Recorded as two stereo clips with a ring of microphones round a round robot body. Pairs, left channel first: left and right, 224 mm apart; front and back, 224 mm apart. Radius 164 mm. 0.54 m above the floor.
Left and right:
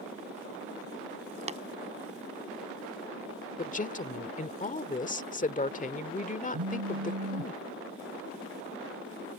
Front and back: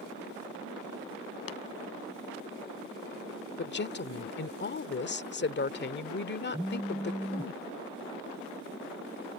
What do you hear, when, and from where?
1.5 s tapping: 25° right
3.6 s a woman speaking: 35° left
6.5 s a phone buzzing: 90° right